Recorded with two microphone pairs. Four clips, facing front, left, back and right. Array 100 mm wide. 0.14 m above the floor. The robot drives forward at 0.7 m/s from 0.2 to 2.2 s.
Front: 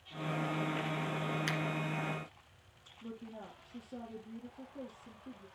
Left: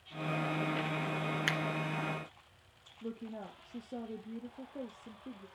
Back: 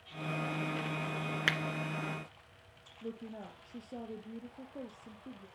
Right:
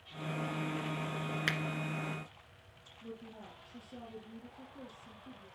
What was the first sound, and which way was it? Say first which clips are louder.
A finger snap: even, back 2 dB; 175° left.